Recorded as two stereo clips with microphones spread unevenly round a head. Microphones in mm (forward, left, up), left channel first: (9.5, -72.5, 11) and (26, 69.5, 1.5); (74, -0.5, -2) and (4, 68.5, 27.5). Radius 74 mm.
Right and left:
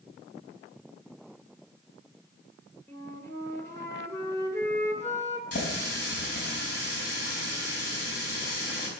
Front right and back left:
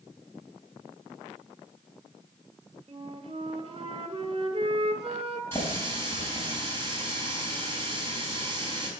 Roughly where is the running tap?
Behind right.